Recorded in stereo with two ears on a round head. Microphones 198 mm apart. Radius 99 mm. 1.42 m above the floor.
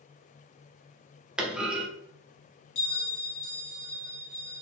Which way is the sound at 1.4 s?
5° right (ahead or behind).